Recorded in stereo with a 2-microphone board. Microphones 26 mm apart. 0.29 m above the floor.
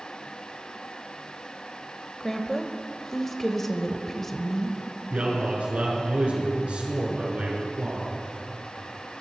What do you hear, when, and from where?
2.2 s a woman speaking: 10° left (ahead or behind), 0.9 m
5.1 s a man speaking: 60° right (ahead or behind), 5 m